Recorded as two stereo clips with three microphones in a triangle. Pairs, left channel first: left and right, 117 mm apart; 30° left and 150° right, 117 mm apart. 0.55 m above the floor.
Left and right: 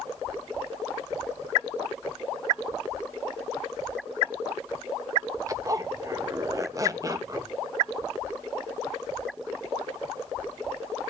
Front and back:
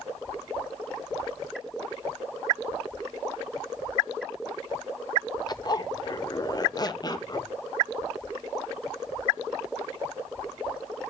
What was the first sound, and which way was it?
A zipper, 30° right.